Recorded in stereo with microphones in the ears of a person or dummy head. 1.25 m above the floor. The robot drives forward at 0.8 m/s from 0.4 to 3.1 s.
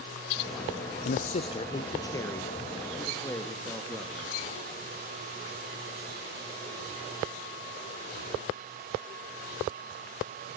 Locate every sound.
1.1 s a man speaking: 45° left (ahead or behind), 0.5 m; by 4.5 s 10° left (ahead or behind), 2.0 m